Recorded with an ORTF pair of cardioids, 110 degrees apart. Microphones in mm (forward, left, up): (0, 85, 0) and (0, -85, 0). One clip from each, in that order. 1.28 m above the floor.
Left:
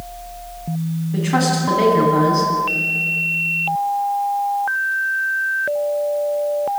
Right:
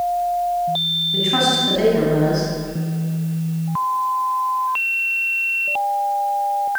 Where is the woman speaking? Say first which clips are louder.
Left 1 dB; 10° left, 9.5 m.